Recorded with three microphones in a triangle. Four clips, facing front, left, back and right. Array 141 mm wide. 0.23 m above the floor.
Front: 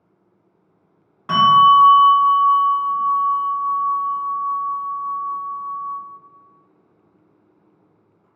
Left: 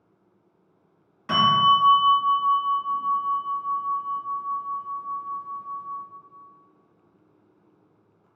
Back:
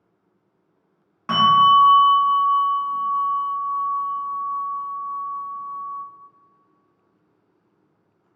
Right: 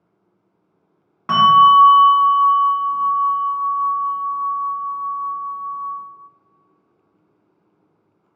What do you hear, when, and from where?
1.3 s a bell: 105° right, 1.4 m